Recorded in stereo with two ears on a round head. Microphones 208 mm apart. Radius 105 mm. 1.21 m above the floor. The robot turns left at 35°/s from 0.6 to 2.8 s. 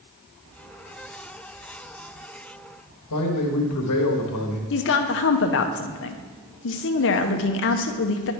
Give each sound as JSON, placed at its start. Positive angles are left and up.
{"t": 3.1, "sound": "a man speaking", "side_deg": 85, "distance_m": 1.1}
{"t": 4.7, "sound": "a woman speaking", "side_deg": 55, "distance_m": 0.7}